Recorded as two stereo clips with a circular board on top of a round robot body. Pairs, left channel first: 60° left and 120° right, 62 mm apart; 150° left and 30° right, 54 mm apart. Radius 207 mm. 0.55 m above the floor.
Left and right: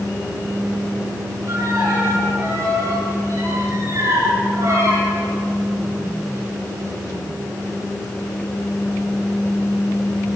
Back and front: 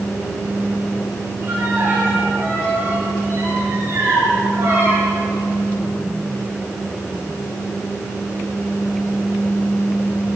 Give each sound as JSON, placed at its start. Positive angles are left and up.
{"t": 1.5, "sound": "a violin", "azimuth_deg": -80, "distance_m": 9.0}